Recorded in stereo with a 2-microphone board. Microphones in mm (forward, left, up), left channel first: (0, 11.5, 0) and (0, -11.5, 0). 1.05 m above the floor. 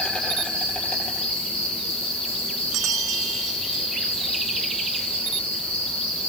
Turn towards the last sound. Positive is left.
turn(degrees=85)